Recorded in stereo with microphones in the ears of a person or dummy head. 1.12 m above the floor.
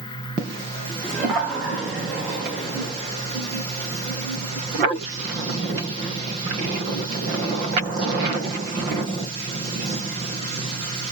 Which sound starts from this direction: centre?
Laughter, at 1.0 s.